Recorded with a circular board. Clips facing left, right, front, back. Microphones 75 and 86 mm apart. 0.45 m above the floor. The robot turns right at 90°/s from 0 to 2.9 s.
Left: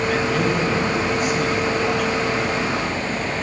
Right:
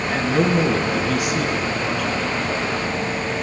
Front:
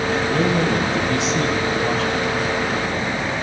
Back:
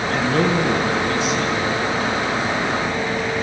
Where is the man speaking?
170° right, 6.5 m; by 2.2 s 20° left, 6.5 m.